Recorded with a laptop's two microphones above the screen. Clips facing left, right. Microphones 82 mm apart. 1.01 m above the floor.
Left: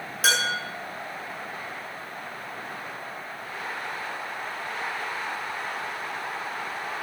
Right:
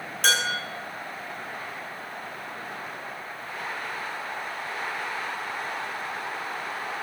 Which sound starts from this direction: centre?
Dishes clattering, at 0.2 s.